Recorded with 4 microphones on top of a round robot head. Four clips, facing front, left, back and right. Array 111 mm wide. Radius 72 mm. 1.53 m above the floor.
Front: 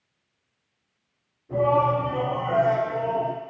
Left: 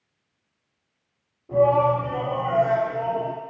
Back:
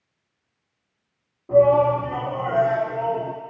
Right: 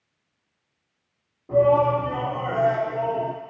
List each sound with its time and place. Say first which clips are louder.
1.5 s a shout: right 1 dB, back 6 dB; 155° right, 4 m